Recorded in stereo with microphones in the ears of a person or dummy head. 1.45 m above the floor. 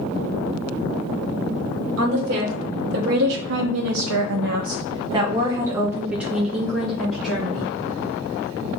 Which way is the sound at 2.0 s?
45° right (ahead or behind).